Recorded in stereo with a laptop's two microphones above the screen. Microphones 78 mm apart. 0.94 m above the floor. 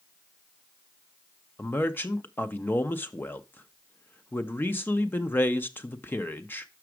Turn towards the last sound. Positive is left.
turn(degrees=25)  # may be behind; listen again after turning